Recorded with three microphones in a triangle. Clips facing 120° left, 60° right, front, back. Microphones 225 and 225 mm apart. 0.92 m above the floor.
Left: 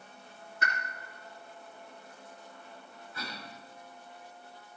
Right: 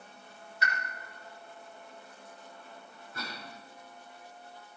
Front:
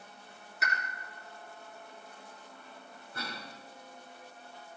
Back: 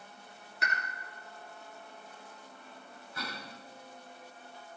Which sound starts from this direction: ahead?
A cough, at 3.1 s.